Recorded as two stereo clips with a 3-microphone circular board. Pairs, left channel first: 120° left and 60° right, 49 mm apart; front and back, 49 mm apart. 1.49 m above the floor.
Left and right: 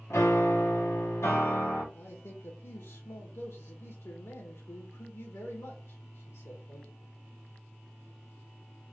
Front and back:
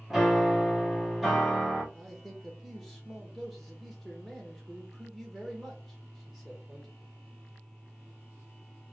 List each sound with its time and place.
0.1 s a piano: 100° left, 1.5 m
1.9 s a man speaking: 90° left, 1.9 m